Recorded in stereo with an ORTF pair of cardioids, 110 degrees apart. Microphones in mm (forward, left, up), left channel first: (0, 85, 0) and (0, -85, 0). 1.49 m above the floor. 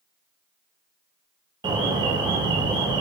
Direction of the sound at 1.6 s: 25° right.